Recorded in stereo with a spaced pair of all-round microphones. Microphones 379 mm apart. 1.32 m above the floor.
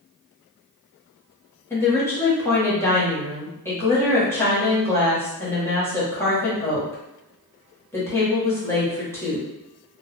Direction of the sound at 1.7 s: 5° left (ahead or behind).